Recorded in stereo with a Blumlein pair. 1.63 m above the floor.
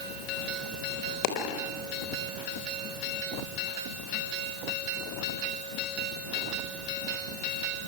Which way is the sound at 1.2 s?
45° left.